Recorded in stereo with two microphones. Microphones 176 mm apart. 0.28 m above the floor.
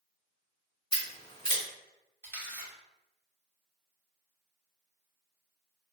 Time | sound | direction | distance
0.9 | scissors | 30° left (ahead or behind) | 1.9 m
2.2 | a camera shutter | 15° left (ahead or behind) | 1.4 m